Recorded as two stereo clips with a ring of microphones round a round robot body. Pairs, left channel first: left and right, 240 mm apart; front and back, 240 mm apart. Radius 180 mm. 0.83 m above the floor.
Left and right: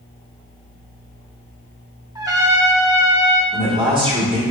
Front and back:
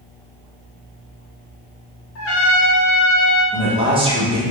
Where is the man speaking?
140° right, 1.0 m.